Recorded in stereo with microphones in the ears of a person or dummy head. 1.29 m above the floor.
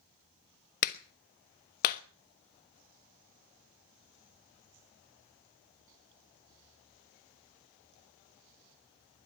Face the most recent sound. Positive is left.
turn(degrees=50)  # may be behind; listen again after turning